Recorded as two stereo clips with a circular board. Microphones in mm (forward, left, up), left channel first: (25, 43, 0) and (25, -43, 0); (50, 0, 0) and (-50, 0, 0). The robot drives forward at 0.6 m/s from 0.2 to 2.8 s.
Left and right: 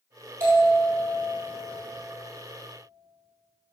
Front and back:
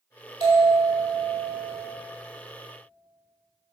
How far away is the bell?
About 4 m.